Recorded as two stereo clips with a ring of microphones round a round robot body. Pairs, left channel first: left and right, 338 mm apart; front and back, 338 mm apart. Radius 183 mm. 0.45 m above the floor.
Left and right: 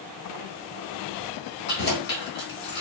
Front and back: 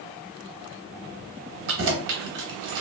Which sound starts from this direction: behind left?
Keys jangling, at 1.7 s.